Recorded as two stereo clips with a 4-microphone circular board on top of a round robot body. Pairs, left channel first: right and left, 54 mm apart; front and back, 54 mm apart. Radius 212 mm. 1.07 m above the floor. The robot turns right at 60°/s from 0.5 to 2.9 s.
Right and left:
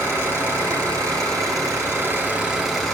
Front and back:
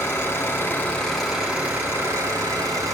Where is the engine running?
45° left, 2 m; by 2.9 s 170° right, 2 m.